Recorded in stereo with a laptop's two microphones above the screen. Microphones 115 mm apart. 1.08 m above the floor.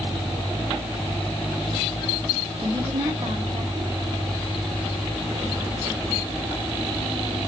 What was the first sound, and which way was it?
A woman speaking, 55° right (ahead or behind).